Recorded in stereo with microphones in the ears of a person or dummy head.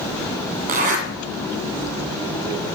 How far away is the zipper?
About 1.9 m.